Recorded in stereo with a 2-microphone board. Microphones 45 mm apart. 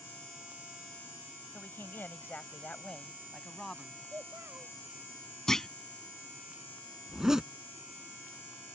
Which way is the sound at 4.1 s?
40° right (ahead or behind).